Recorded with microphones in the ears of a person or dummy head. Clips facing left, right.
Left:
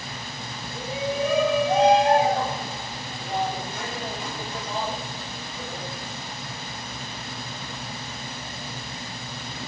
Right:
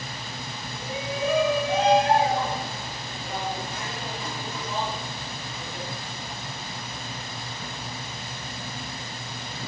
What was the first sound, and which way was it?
A shout, 25° left (ahead or behind).